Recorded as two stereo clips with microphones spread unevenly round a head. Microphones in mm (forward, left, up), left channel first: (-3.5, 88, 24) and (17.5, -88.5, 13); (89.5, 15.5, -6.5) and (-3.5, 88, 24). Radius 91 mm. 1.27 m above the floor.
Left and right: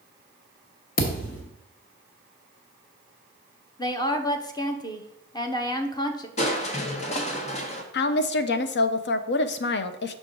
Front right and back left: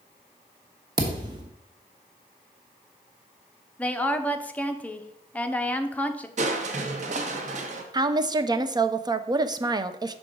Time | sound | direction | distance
1.0 | a thud | 120° left | 1.1 m
3.8 | a woman speaking | 30° left | 0.8 m
6.4 | crushing | 150° left | 0.8 m
7.9 | a woman speaking | 80° left | 0.6 m